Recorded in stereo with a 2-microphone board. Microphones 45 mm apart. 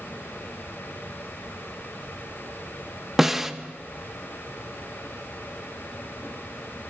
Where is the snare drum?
10° right (ahead or behind), 0.6 m.